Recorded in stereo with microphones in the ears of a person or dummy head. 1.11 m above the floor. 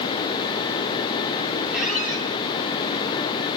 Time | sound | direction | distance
1.7 | a squeak | centre (ahead or behind) | 9 m